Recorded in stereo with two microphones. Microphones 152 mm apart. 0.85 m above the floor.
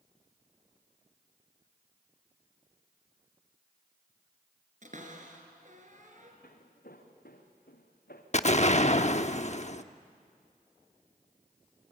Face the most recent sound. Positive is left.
turn(degrees=45)  # may be behind; listen again after turning